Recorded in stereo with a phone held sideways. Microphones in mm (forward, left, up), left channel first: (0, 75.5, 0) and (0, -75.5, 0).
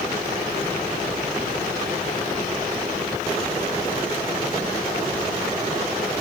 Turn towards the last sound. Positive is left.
No sound to turn to.